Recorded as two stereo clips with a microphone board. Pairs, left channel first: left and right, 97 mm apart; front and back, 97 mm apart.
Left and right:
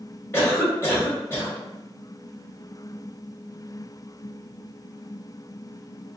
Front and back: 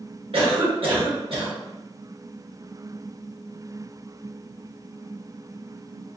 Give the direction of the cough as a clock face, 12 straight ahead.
7 o'clock.